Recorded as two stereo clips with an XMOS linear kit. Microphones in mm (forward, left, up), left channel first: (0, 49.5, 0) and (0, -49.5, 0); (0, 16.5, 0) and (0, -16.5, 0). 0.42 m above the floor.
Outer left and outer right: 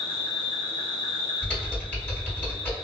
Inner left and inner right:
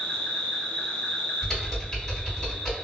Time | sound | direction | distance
0.0 | an insect | 60° left (ahead or behind) | 1.1 m
1.4 | typing on a keyboard | 15° left (ahead or behind) | 1.8 m